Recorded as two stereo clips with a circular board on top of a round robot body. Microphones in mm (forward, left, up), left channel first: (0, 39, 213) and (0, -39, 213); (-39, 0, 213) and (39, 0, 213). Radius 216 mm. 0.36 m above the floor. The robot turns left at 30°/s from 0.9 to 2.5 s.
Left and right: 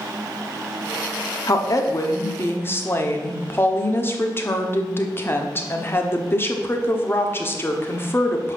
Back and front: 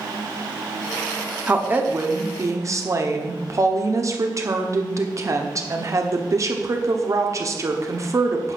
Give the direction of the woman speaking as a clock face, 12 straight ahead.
10 o'clock.